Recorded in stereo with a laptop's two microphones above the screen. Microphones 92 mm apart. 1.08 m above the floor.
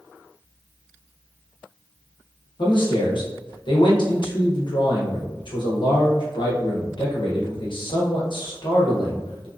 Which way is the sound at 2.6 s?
60° left (ahead or behind).